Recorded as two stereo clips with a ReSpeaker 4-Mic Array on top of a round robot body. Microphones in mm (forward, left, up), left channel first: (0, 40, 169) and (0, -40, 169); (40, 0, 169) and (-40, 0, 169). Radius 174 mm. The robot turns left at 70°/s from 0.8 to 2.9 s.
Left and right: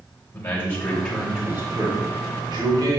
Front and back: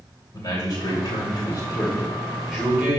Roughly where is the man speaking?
Ahead left.